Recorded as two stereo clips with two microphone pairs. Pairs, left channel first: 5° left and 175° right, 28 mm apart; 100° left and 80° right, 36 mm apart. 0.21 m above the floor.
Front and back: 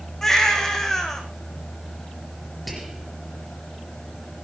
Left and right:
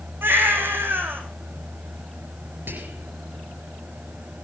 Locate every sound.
0.2 s a baby crying: 75° right, 3.5 m
2.7 s whispering: 90° right, 4 m